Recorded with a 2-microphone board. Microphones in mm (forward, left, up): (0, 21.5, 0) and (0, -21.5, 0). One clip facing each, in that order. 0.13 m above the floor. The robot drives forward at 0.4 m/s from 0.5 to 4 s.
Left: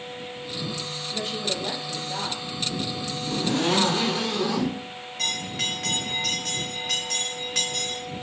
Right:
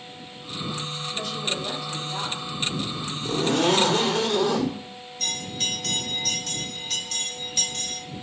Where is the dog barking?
I don't hear a dog barking.